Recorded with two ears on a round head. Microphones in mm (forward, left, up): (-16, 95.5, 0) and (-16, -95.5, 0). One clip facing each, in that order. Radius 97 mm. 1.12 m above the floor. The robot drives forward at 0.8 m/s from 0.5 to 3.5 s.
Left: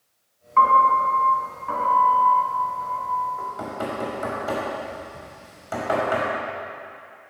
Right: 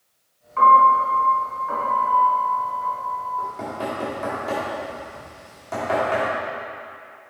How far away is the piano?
About 2 m.